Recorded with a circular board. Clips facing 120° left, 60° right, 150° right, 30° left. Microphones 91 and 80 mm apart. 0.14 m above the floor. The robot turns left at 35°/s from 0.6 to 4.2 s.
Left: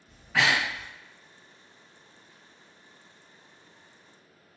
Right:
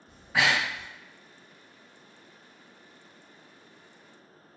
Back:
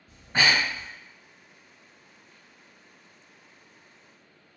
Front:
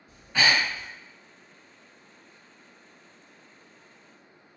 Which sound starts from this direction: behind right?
Breathing, at 0.1 s.